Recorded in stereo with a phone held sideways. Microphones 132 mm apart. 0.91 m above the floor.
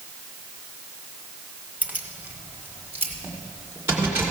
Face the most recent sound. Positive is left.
turn(degrees=-20)  # may be behind; listen again after turning